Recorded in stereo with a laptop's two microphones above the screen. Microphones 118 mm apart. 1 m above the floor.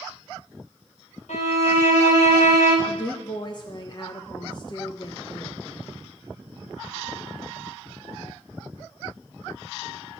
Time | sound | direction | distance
1.3 | a violin | 80° left | 2.5 m
2.9 | a woman speaking | 40° left (ahead or behind) | 0.8 m